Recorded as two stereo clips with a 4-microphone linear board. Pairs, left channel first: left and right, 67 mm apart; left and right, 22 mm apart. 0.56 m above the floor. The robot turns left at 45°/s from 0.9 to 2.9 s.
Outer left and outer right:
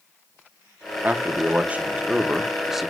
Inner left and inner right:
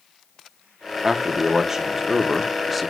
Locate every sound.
1.0 s a man speaking: 25° right (ahead or behind), 0.8 m; by 2.9 s centre (ahead or behind), 0.8 m